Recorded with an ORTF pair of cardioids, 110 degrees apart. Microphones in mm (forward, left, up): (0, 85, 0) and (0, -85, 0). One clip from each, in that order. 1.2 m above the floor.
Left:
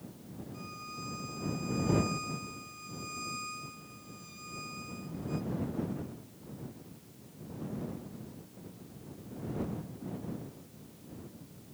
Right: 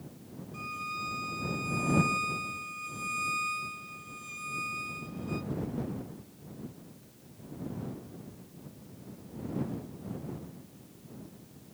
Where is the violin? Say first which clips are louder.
Right 9 dB; 45° right.